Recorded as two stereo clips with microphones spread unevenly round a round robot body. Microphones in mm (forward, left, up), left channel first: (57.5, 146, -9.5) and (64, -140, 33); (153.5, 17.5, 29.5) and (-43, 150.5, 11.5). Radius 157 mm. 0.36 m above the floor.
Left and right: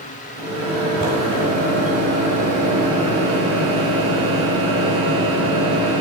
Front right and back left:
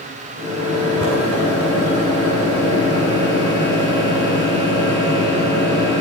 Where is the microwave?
140° right, 3 m.